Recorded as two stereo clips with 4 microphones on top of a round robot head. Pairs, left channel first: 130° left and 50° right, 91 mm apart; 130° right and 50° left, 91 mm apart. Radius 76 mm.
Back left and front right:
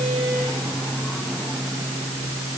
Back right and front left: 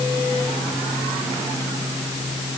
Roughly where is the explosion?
I don't hear an explosion.